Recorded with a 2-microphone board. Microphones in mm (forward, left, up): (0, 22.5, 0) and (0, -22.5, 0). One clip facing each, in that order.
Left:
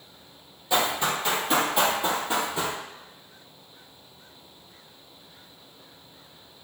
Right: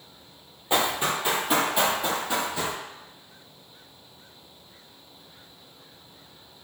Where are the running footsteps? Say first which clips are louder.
Even; 30° right (ahead or behind), 1.1 m; by 2.8 s 30° left (ahead or behind), 1.3 m.